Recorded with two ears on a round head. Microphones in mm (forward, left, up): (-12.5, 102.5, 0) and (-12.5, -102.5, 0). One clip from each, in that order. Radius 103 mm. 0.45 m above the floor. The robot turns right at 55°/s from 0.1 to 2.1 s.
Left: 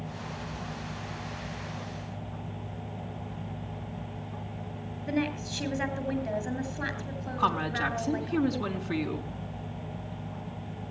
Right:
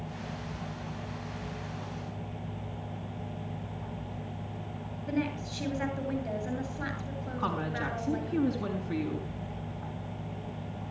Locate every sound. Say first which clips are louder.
5.1 s a woman speaking: left 2 dB; 25° left (ahead or behind), 8 m
7.4 s a woman speaking: left 6 dB; 40° left (ahead or behind), 5 m